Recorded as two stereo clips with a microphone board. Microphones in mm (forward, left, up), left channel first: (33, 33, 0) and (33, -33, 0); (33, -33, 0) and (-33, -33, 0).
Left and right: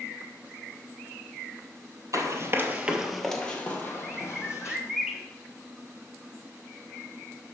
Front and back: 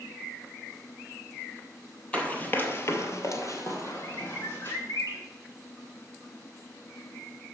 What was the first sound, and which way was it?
Running footsteps, 70° right.